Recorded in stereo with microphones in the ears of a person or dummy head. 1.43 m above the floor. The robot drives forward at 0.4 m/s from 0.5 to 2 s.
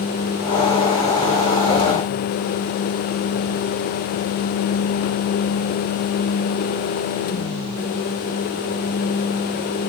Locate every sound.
Only background noise.